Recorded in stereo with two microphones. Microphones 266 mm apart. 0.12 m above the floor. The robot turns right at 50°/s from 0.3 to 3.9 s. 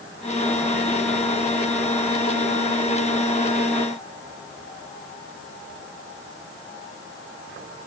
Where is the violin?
I don't hear a violin.